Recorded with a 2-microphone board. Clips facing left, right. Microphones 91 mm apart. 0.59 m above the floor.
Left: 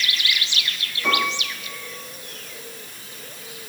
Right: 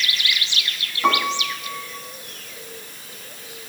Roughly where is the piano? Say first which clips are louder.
Right 4 dB; right.